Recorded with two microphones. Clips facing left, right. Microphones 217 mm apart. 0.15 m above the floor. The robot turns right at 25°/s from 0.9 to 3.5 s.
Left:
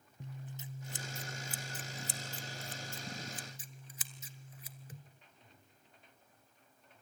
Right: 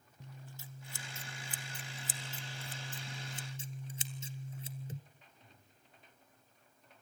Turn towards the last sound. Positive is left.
turn(degrees=-30)  # may be behind; listen again after turning